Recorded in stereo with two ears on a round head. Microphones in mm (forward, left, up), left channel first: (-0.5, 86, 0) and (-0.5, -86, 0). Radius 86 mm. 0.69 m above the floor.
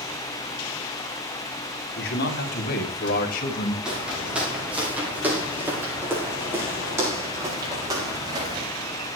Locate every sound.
2.0 s a man speaking: 60° left (ahead or behind), 4.5 m; by 3.8 s 45° left (ahead or behind), 3 m
3.9 s footsteps: 5° right (ahead or behind), 9.5 m; by 8.7 s 20° right (ahead or behind), 8 m